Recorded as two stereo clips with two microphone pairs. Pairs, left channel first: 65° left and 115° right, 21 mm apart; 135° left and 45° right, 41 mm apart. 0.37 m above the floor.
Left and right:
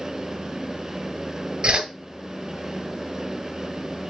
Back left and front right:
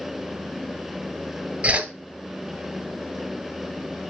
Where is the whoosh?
90° right, 1.4 m.